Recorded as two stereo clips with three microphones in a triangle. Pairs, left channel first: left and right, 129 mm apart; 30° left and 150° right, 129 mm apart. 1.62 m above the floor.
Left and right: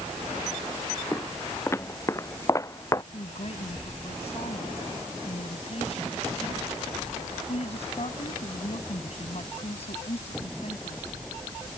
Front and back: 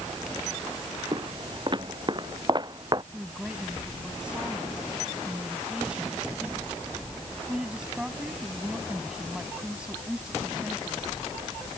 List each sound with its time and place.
1.1 s footsteps: 160° left; by 3.0 s 155° left
3.1 s a woman speaking: 125° left